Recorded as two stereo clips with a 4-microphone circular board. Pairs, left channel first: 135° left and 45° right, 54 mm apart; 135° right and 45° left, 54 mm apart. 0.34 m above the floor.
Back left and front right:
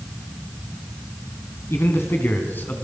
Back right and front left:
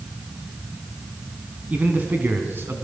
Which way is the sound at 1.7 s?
105° left.